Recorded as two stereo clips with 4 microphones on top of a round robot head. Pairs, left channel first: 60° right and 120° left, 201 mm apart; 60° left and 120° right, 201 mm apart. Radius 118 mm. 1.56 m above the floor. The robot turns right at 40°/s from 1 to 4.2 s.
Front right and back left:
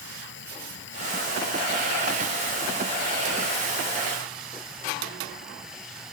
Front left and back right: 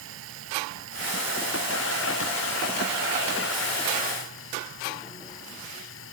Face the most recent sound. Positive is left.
turn(degrees=35)